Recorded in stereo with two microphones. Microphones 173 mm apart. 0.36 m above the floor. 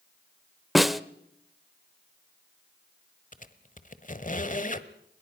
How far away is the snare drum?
About 0.7 m.